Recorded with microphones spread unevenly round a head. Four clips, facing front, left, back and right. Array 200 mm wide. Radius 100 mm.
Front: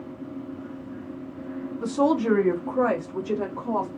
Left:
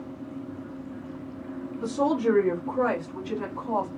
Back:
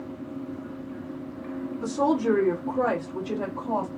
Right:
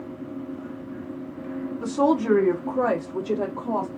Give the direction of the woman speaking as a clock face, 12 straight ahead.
1 o'clock.